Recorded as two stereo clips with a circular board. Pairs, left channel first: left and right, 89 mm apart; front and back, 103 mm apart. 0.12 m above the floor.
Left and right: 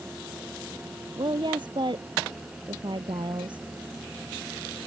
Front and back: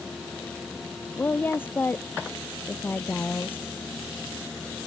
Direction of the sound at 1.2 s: 70° right.